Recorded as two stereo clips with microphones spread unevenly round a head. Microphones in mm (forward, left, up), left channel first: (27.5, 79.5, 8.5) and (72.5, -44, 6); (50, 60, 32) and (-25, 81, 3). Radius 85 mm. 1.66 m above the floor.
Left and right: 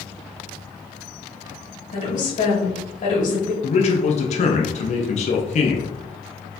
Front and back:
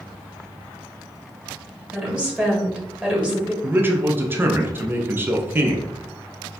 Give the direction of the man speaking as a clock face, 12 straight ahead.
9 o'clock.